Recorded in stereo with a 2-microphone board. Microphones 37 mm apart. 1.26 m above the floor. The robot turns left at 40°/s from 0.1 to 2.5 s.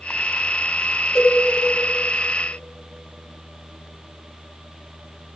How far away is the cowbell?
About 2.5 m.